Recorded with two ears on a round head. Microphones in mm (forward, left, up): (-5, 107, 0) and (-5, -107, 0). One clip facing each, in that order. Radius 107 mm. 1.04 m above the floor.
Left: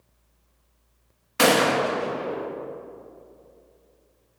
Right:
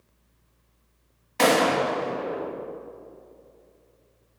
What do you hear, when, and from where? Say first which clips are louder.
1.4 s a gunshot: left 1 dB; 15° left (ahead or behind), 1.6 m